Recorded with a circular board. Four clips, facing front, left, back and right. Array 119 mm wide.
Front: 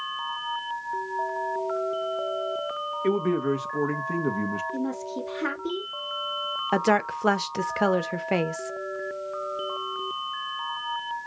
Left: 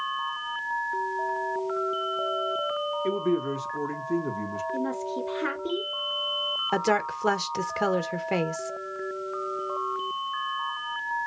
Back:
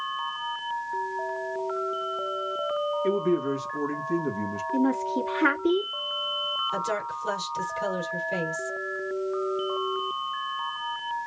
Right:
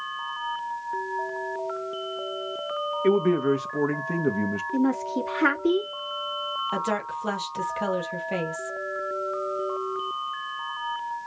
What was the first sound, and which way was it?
A man speaking, 65° right.